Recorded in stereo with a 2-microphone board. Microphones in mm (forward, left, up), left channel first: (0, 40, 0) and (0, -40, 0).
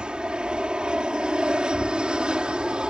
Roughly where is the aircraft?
Centre.